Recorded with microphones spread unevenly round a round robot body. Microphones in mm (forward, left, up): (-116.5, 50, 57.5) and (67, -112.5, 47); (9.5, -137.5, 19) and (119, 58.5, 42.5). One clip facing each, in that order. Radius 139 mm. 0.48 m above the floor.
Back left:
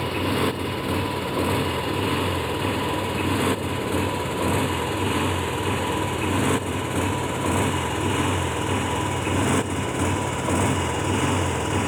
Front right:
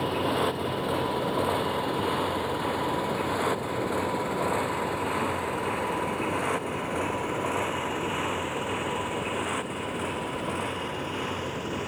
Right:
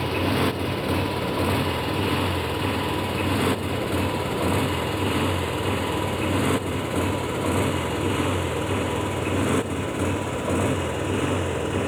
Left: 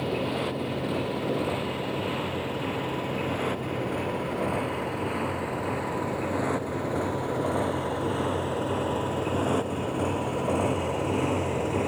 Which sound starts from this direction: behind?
A motorcycle, at 0.0 s.